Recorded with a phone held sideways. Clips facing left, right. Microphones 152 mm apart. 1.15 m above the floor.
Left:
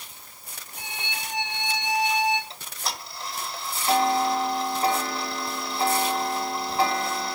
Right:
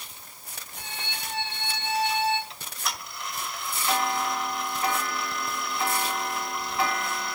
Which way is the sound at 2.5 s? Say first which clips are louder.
Left 1 dB; 35° left (ahead or behind).